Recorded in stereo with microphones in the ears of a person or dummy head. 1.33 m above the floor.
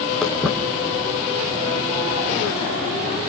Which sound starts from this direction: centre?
Footsteps, at 0.2 s.